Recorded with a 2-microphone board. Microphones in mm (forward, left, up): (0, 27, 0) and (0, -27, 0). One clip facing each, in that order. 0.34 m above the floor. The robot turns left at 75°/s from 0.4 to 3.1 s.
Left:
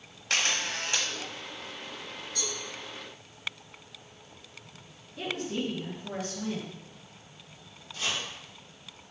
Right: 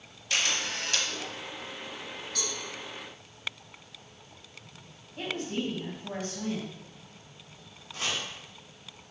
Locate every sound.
0.3 s a camera shutter: 60° left, 0.6 m; by 1.1 s 10° left, 0.6 m
2.4 s a cowbell: 70° right (ahead or behind), 1.3 m; by 2.6 s 65° right (ahead or behind), 1.3 m
5.2 s a woman speaking: 50° right (ahead or behind), 1.9 m
7.9 s chopping: 65° right (ahead or behind), 1.7 m